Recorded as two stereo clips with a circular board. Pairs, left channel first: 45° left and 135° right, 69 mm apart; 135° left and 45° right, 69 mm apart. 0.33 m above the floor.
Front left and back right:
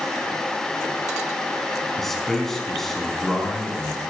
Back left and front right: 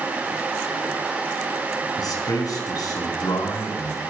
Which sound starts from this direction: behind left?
A man speaking, at 2.0 s.